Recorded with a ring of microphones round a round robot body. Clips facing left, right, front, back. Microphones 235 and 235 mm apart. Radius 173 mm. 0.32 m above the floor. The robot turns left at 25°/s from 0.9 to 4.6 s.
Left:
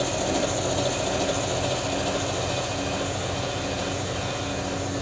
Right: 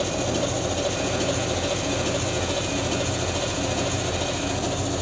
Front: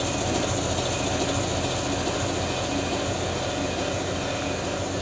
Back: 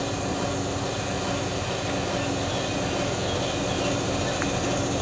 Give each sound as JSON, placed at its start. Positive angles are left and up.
{"t": 0.0, "sound": "an engine running", "azimuth_deg": -35, "distance_m": 5.0}